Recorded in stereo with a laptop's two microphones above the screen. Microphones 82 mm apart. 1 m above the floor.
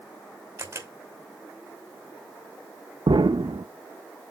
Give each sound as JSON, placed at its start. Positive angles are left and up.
{"t": 0.6, "sound": "a camera shutter", "side_deg": -35, "distance_m": 2.5}
{"t": 3.1, "sound": "an explosion", "side_deg": -70, "distance_m": 0.7}